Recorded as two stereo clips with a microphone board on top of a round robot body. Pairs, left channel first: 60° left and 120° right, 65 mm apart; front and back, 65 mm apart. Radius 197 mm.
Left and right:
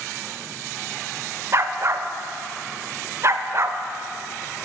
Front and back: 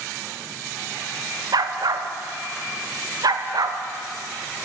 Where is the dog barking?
165° right, 0.8 m.